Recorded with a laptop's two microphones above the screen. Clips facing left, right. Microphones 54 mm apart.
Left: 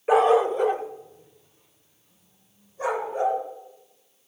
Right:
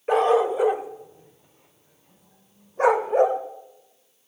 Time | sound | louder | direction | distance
0.1 | a dog barking | left 1 dB | 5° left (ahead or behind) | 1.3 m